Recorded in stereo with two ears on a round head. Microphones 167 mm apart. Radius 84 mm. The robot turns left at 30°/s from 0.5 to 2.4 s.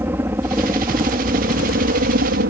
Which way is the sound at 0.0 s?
15° right (ahead or behind).